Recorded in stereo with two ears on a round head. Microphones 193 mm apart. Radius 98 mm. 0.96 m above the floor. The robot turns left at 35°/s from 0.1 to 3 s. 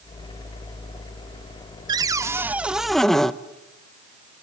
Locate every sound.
1.9 s a cupboard door: 145° right, 0.7 m; by 3.3 s 175° left, 0.7 m